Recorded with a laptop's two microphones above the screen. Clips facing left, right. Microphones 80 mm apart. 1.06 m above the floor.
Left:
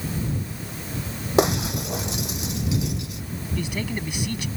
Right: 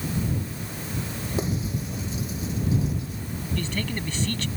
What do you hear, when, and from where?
1.4 s breaking glass: 85° left
3.6 s a man speaking: 10° left (ahead or behind)